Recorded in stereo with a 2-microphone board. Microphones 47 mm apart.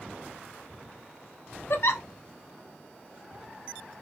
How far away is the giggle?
About 0.7 m.